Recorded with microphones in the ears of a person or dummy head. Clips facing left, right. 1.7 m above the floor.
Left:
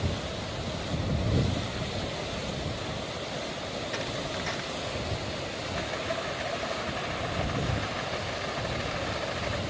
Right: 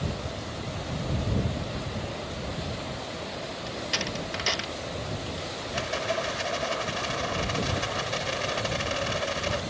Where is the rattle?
45° right (ahead or behind).